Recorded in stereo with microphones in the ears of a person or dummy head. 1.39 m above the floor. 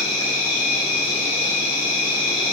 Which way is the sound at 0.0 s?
25° left (ahead or behind).